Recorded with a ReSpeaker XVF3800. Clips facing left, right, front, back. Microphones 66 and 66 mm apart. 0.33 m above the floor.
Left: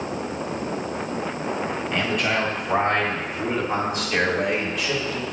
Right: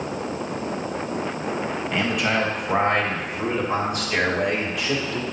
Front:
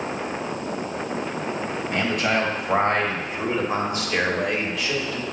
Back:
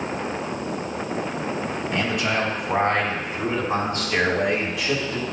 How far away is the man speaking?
About 1.7 m.